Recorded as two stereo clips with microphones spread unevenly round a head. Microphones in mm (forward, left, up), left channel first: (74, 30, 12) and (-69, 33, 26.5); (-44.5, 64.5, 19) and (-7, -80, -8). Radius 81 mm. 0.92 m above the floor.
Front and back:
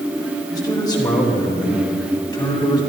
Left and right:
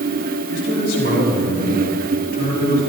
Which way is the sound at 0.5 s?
65° left.